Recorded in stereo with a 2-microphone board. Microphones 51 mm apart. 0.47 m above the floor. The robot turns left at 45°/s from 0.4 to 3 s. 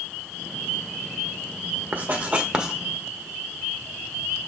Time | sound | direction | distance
1.9 | writing | 35° right (ahead or behind) | 1.1 m